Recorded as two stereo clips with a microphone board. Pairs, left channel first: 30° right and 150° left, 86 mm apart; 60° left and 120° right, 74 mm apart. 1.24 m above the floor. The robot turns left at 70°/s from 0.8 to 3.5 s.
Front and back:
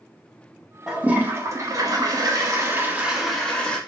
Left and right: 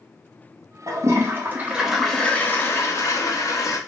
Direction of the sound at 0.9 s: 130° right.